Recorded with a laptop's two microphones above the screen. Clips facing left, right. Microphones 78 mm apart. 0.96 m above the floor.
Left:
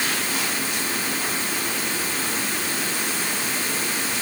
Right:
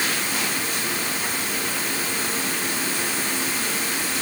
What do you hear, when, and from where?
Only background noise.